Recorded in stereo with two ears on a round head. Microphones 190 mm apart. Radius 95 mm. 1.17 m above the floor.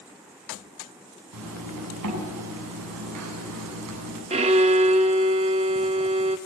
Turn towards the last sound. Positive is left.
turn(degrees=-30)  # may be behind; listen again after turning